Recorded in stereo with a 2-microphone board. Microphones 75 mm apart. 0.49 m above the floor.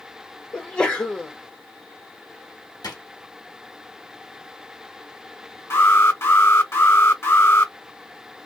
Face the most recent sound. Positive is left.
turn(degrees=40)  # may be behind; listen again after turning